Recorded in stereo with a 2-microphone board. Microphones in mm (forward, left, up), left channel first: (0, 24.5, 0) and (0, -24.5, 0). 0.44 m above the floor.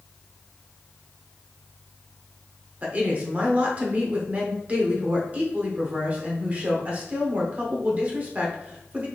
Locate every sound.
2.8 s a woman speaking: 30° right (ahead or behind), 1.1 m